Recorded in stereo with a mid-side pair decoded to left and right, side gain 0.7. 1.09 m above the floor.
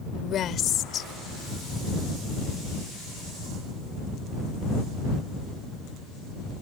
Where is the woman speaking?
45° left.